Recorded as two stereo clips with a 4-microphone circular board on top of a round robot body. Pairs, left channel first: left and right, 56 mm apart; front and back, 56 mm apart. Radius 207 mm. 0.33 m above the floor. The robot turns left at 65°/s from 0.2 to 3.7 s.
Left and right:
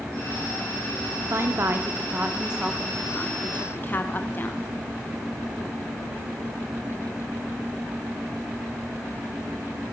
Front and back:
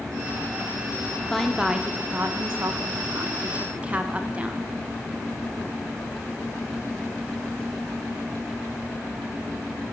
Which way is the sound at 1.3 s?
80° right.